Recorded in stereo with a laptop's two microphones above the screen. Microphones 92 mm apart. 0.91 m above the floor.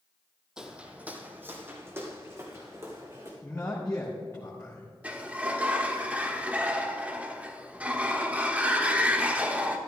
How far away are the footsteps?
About 1.3 m.